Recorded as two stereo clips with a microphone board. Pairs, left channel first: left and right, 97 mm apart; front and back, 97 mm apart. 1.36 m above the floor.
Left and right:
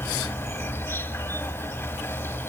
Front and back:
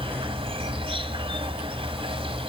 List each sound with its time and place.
0.0 s an insect: 155° left, 2.5 m